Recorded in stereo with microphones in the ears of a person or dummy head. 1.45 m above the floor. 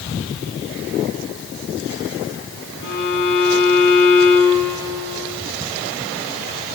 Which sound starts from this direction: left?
A violin, at 2.8 s.